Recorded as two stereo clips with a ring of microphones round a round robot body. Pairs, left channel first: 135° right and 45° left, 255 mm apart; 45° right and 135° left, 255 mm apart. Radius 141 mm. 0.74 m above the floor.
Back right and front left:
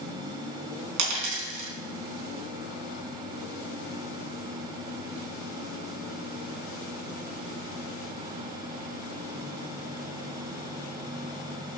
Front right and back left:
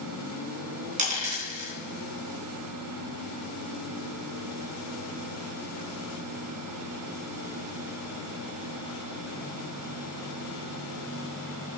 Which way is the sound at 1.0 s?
70° left.